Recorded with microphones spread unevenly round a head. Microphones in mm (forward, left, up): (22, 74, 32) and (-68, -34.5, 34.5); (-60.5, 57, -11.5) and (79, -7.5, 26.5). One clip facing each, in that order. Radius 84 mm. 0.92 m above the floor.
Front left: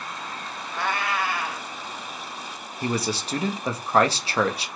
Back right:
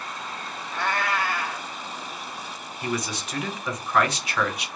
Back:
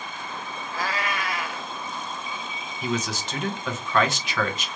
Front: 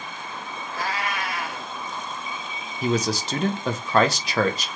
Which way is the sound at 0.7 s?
140° left.